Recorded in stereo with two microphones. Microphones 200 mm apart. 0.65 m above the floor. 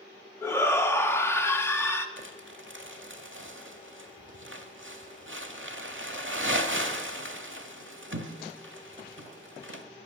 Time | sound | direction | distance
0.4 | a shout | 10° left (ahead or behind) | 0.8 m
2.2 | crumpling | 65° right (ahead or behind) | 0.8 m